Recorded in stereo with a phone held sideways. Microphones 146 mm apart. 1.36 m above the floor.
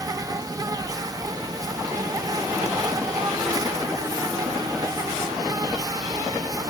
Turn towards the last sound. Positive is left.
turn(degrees=-25)  # may be behind; listen again after turning